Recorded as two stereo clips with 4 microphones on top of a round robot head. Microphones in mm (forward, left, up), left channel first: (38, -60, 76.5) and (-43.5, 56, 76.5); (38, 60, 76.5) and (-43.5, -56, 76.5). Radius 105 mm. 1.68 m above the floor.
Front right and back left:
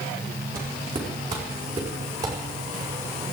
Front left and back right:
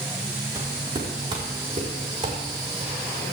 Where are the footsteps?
175° left, 4 m; by 2.9 s 175° right, 6 m.